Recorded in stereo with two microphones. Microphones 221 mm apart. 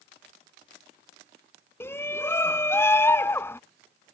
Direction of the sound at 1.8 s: 10° left (ahead or behind).